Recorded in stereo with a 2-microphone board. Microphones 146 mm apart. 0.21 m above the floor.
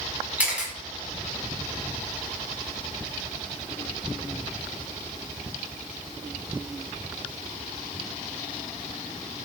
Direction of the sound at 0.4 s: 10° right (ahead or behind).